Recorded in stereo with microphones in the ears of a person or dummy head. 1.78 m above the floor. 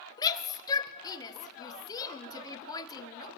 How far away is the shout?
About 1.1 m.